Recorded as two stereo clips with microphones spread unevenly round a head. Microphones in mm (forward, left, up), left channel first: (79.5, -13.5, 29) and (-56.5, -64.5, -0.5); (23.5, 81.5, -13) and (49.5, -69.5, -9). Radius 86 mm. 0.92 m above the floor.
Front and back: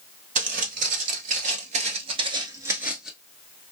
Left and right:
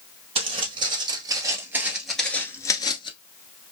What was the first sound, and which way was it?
Footsteps, 130° right.